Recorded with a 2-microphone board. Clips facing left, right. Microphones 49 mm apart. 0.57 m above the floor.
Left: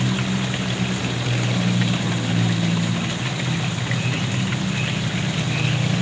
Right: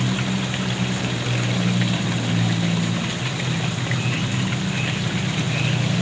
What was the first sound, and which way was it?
Only background noise.